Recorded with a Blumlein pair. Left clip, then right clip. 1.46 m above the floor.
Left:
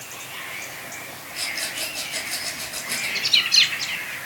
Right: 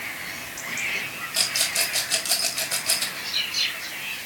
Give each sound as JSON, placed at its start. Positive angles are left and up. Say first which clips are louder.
{"t": 1.3, "sound": "a rattle", "louder": "right 4 dB", "azimuth_deg": -35, "distance_m": 2.5}
{"t": 3.1, "sound": "a bird", "louder": "left 8 dB", "azimuth_deg": 55, "distance_m": 1.4}